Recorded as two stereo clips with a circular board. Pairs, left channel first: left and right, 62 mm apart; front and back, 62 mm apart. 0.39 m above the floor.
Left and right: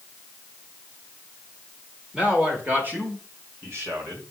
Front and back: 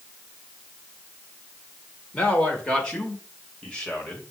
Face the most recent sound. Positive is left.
turn(degrees=-75)